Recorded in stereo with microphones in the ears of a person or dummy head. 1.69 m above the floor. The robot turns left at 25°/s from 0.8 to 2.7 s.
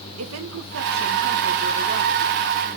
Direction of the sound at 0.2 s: 90° right.